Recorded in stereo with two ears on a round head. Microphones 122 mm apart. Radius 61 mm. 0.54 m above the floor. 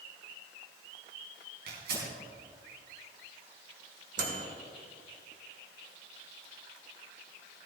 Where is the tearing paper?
80° right, 4 m.